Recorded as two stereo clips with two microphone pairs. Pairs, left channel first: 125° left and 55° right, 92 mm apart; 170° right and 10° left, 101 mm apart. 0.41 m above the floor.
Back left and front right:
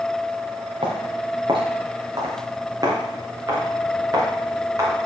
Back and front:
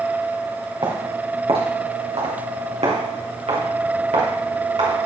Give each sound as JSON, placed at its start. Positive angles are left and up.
{"t": 0.8, "sound": "footsteps", "azimuth_deg": -25, "distance_m": 3.0}